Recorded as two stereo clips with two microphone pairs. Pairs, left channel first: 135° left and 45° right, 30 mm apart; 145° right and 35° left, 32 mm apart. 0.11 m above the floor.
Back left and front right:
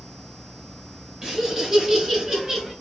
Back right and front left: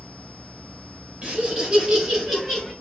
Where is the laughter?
25° left, 1.7 m; by 2.7 s 60° right, 1.4 m.